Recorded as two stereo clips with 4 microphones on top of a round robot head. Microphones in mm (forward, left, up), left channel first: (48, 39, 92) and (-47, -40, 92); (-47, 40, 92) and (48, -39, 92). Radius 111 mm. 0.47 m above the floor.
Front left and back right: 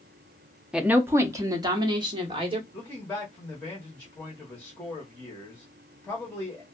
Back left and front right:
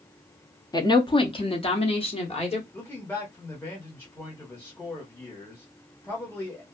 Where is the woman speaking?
140° left, 0.7 m; by 2.6 s 175° left, 1.5 m.